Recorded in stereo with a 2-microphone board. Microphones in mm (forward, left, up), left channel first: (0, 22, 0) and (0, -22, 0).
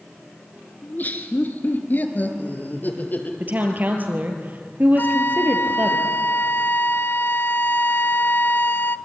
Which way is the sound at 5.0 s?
60° left (ahead or behind).